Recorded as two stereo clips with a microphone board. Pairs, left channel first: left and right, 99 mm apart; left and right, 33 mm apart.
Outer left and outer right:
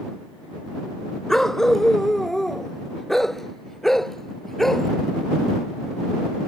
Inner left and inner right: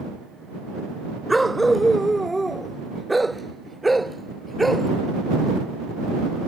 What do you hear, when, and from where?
1.3 s a dog barking: 5° left (ahead or behind); by 4.9 s centre (ahead or behind)